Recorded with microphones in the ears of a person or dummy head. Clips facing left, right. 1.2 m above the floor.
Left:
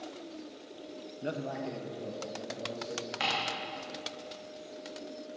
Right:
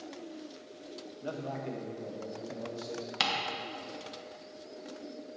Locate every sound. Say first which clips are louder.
1.2 s a man speaking: left 2 dB; 30° left (ahead or behind), 0.7 m; by 3.1 s 15° right (ahead or behind), 3 m
3.2 s ticking: right 1 dB; 55° right (ahead or behind), 1.5 m